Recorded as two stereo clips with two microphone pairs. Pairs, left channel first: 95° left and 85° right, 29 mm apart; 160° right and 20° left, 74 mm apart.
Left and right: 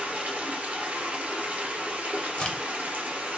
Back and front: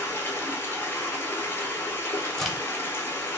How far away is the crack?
About 0.7 m.